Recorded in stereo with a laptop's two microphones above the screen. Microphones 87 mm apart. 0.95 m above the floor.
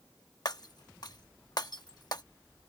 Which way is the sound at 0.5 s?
55° left (ahead or behind).